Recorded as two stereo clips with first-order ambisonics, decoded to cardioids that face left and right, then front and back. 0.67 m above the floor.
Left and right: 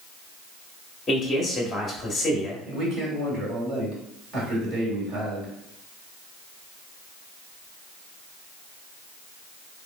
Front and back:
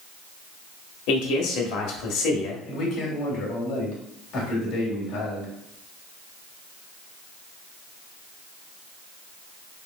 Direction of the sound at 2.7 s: 35° right.